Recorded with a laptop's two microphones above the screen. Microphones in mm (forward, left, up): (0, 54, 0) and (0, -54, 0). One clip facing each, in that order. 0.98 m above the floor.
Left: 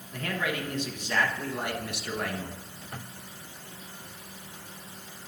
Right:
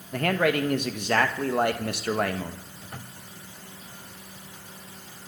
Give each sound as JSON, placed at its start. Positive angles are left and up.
{"t": 0.1, "sound": "a man speaking", "side_deg": -60, "distance_m": 1.0}